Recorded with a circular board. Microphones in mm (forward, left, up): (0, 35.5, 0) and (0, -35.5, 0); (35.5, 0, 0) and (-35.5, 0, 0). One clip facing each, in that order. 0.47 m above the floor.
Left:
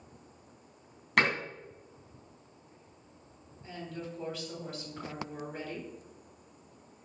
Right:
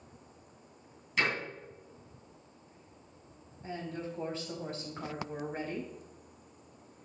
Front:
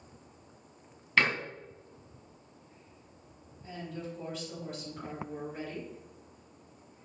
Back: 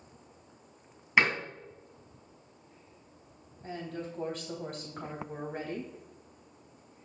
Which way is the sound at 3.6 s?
145° right.